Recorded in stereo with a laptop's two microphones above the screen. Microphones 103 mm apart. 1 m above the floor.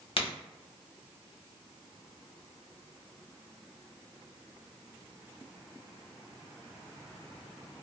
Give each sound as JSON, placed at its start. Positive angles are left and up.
{"t": 0.2, "sound": "a crack", "side_deg": 65, "distance_m": 1.0}